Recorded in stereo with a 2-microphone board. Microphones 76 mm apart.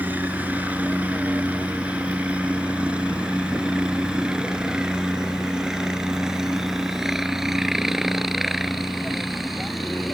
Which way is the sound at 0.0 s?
20° right (ahead or behind).